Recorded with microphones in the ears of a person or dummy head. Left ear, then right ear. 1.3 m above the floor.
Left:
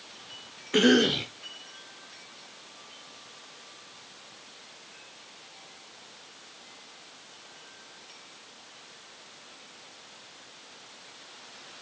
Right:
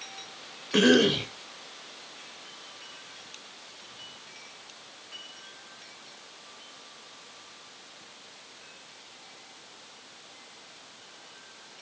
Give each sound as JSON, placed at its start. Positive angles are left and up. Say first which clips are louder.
{"t": 0.7, "sound": "a cough", "louder": "right 1 dB", "side_deg": -5, "distance_m": 0.9}